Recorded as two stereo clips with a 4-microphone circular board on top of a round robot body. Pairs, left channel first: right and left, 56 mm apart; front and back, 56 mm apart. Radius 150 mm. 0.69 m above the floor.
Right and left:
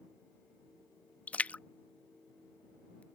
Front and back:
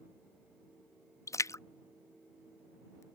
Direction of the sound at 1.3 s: 25° right.